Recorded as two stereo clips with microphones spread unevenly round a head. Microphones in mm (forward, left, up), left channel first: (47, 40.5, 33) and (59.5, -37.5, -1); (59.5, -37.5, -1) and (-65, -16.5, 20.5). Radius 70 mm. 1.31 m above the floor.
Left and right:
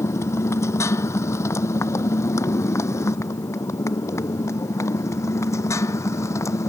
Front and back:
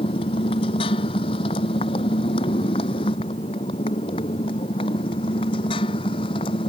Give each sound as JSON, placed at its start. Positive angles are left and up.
{"t": 0.0, "sound": "a motorcycle", "azimuth_deg": 45}